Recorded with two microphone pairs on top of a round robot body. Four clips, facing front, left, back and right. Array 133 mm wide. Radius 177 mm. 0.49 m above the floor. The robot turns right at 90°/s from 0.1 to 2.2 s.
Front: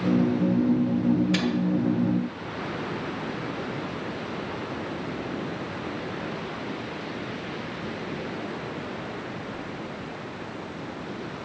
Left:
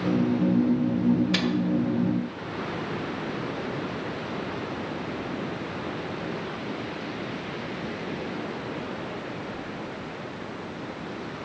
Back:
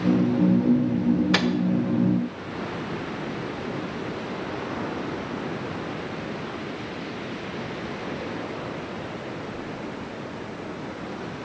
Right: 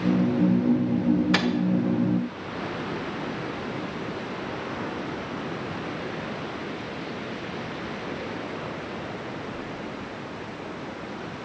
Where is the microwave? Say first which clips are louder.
Right 2 dB, back 2 dB; 145° right, 1.4 m; by 1.5 s 130° right, 1.4 m.